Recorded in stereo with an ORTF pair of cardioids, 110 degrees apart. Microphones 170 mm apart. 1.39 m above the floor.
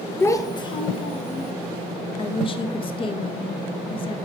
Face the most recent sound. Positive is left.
turn(degrees=30)